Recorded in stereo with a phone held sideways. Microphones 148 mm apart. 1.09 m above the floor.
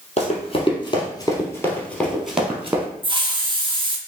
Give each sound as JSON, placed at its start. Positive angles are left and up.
{"t": 0.2, "sound": "running footsteps", "side_deg": 45, "distance_m": 1.4}
{"t": 3.0, "sound": "a hiss", "side_deg": -30, "distance_m": 0.5}